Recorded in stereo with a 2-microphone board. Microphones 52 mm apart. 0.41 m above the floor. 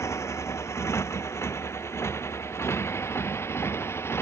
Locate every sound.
0.0 s a motorcycle: 70° left (ahead or behind); by 4.2 s 55° left (ahead or behind)